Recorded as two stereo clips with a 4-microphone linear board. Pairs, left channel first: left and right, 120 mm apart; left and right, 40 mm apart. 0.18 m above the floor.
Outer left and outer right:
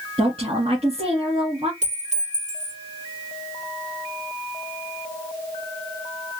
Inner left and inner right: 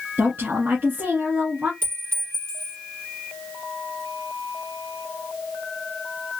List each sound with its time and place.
0.2 s a woman speaking: 55° right (ahead or behind), 1.7 m
1.8 s a clink: 75° right (ahead or behind), 3 m